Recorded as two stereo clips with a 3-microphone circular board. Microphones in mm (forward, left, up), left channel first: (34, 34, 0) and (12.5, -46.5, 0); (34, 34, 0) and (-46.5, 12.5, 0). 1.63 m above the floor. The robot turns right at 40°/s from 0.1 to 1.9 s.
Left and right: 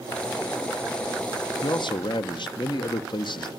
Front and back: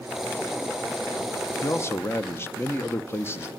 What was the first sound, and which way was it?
A man speaking, 65° left.